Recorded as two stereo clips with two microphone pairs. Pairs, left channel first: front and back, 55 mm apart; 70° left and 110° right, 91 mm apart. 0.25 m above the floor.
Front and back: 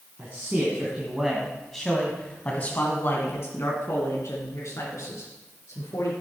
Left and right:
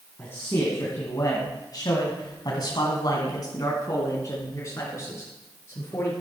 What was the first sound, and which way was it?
A man speaking, 130° left.